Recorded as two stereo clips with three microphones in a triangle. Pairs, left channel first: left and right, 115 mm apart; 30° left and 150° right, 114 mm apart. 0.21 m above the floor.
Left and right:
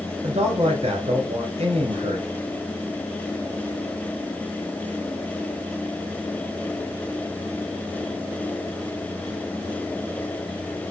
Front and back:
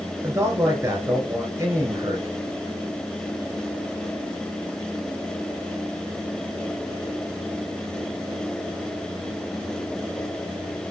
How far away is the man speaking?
About 3.5 m.